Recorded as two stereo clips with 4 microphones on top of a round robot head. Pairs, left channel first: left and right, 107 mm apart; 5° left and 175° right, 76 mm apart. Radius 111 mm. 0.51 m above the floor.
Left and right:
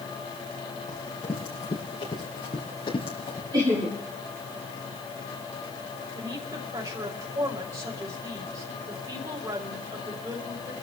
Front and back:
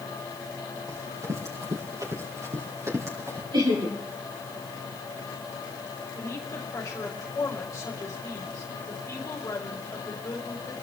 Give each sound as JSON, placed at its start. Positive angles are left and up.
{"t": 0.9, "sound": "running footsteps", "azimuth_deg": 140, "distance_m": 6.5}
{"t": 3.5, "sound": "laughter", "azimuth_deg": -145, "distance_m": 7.0}
{"t": 6.2, "sound": "a woman speaking", "azimuth_deg": -50, "distance_m": 4.0}